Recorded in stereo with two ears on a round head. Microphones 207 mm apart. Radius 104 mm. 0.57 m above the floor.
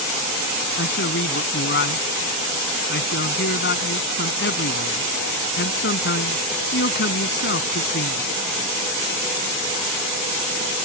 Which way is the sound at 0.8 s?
50° left (ahead or behind).